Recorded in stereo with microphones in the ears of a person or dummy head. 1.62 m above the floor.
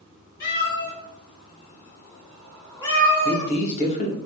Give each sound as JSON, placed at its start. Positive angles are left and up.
{"t": 0.4, "sound": "a cat meowing", "side_deg": 60, "distance_m": 1.9}
{"t": 3.2, "sound": "a man speaking", "side_deg": 40, "distance_m": 1.2}